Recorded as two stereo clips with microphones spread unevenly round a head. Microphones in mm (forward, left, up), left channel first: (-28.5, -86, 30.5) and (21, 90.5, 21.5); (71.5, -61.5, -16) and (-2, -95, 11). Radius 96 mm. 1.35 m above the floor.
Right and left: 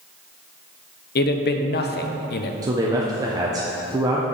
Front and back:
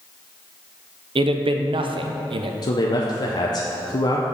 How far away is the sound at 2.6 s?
About 0.7 m.